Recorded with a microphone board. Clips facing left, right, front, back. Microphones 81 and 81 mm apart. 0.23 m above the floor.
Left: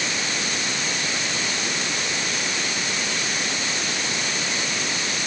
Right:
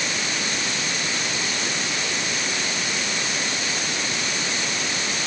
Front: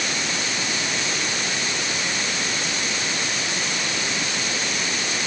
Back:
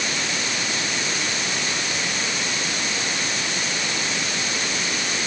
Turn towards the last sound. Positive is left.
No sound to turn to.